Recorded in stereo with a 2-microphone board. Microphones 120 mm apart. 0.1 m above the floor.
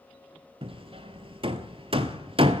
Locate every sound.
0.6 s hammering: 50° right (ahead or behind), 0.7 m